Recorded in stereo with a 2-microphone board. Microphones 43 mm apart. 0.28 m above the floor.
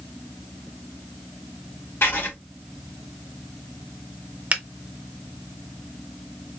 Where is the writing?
65° left (ahead or behind), 3 m.